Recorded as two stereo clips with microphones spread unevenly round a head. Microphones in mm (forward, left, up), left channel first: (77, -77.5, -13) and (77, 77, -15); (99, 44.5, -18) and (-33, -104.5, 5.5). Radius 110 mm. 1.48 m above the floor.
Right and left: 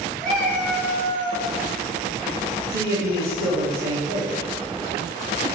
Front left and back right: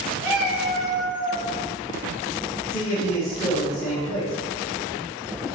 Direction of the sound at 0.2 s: 170° right.